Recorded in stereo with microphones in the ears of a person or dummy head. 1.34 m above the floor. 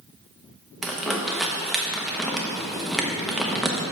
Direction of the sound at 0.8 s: Centre (ahead or behind).